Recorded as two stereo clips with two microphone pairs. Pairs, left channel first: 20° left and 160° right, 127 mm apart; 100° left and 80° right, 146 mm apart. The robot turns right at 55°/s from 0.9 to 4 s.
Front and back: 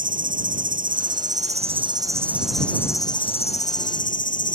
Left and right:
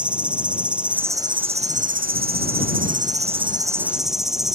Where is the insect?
160° right; by 4.6 s 10° left.